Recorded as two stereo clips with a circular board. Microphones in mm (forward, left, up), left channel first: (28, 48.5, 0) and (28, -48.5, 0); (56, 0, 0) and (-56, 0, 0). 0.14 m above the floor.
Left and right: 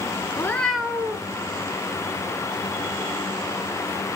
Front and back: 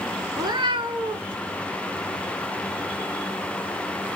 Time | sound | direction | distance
0.4 | a cat meowing | 135° left | 0.5 m